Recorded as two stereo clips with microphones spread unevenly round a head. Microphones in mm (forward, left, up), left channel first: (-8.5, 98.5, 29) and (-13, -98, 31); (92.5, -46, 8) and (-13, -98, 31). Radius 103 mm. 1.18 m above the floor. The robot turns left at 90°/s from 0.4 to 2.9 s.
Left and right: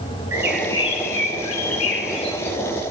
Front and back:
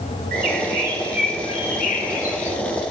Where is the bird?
170° right, 3 m; by 2.6 s 5° right, 3 m.